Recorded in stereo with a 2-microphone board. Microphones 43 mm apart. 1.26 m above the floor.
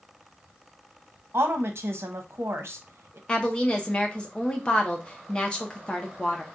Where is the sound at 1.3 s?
70° right (ahead or behind), 0.9 m.